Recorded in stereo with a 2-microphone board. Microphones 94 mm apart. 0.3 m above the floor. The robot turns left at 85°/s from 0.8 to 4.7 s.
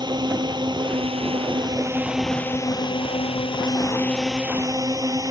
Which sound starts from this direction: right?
A drone, at 0.0 s.